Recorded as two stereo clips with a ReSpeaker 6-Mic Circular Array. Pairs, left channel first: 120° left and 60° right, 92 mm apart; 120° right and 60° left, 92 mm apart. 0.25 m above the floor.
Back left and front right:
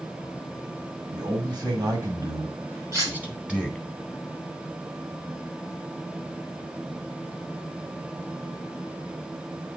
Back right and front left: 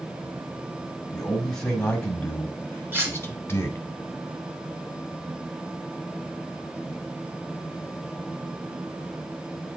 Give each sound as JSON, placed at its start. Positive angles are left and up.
{"t": 1.1, "sound": "a man speaking", "azimuth_deg": -35, "distance_m": 1.9}
{"t": 2.9, "sound": "cutlery clinking", "azimuth_deg": -5, "distance_m": 2.5}